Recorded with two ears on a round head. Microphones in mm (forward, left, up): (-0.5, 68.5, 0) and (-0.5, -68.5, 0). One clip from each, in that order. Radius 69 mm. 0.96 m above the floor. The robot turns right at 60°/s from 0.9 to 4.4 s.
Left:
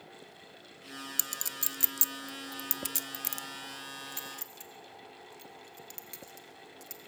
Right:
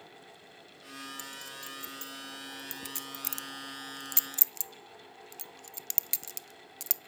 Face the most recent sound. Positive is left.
turn(degrees=-65)  # may be behind; listen again after turning